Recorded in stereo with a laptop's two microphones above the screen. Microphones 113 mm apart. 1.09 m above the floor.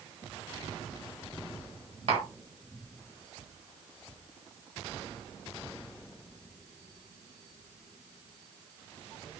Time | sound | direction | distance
2.1 | tapping | 60° right (ahead or behind) | 1.7 m